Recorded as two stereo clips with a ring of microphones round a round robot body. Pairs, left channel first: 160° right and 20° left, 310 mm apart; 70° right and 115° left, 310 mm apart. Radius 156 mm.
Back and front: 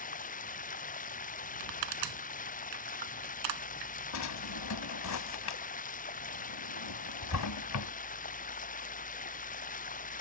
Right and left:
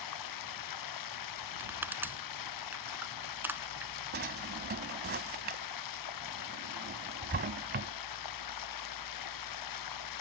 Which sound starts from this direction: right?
Running water, at 0.0 s.